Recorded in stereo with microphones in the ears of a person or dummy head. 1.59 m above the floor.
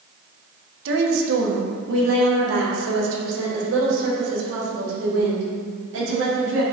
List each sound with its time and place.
0.8 s a woman speaking: 75° right (ahead or behind), 1.4 m